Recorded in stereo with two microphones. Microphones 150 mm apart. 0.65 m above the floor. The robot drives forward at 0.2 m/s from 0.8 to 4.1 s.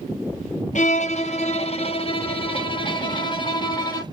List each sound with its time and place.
0.8 s a violin: 50° left (ahead or behind), 0.7 m; by 4.0 s 30° left (ahead or behind), 1.1 m